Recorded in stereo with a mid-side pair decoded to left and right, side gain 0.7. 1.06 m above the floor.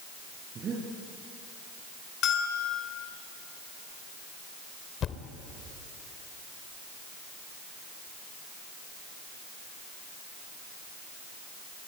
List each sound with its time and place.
0.6 s breathing: 35° right, 6.5 m
2.2 s a bell: 50° left, 3 m
5.0 s a thud: 40° left, 2 m